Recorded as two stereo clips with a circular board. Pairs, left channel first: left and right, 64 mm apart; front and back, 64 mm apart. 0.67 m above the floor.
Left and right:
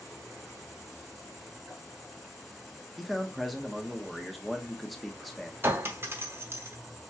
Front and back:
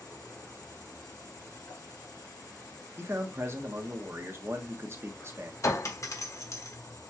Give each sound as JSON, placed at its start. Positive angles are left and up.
{"t": 0.0, "sound": "an insect", "azimuth_deg": 0, "distance_m": 3.0}
{"t": 3.0, "sound": "a man speaking", "azimuth_deg": 180, "distance_m": 1.0}
{"t": 5.6, "sound": "a clink", "azimuth_deg": -35, "distance_m": 1.0}